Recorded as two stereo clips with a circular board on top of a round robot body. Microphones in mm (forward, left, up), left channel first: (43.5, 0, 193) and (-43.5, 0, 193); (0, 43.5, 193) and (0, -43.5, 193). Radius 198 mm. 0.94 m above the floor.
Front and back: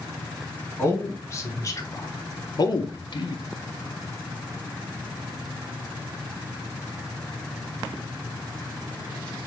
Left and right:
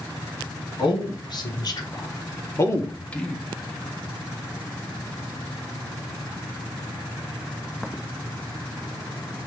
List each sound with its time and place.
0.8 s a man speaking: 60° left, 1.9 m; by 3.4 s 5° left, 0.9 m